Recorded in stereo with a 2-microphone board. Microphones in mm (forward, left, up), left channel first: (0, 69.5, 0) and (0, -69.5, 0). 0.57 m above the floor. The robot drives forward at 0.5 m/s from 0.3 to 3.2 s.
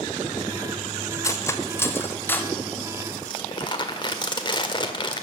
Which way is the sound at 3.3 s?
30° left (ahead or behind).